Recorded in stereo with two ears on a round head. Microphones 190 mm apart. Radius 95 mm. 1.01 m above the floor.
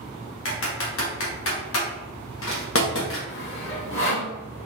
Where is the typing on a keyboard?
65° left (ahead or behind), 1.2 m.